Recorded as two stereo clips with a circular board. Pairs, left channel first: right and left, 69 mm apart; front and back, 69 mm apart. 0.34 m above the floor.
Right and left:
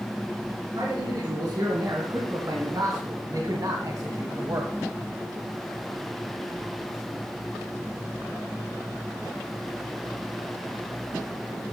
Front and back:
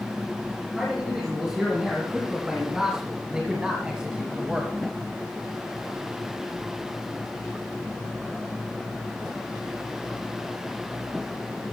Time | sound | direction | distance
0.8 | a man speaking | 100° left | 3.5 m